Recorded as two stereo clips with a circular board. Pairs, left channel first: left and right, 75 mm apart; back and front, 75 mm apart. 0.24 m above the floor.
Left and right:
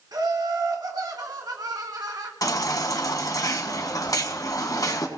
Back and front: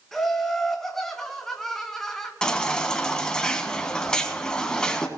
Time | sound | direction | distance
0.1 | laughter | 95° right | 1.8 m
2.4 | a baby crying | 100° left | 1.6 m